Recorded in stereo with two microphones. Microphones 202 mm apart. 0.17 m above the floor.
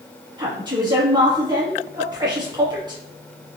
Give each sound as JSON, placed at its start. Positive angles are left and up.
{"t": 0.4, "sound": "a woman speaking", "side_deg": -20, "distance_m": 1.3}